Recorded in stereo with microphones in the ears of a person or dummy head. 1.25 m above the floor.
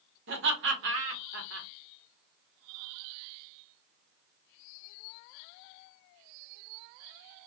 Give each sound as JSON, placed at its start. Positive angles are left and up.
{"t": 0.3, "sound": "laughter", "side_deg": -60, "distance_m": 0.9}